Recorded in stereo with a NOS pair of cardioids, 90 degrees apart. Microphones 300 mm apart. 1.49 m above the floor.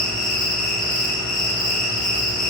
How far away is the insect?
About 0.7 m.